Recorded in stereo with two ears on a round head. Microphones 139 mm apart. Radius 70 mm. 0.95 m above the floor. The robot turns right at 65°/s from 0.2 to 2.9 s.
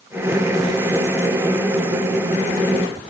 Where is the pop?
No pop in this recording.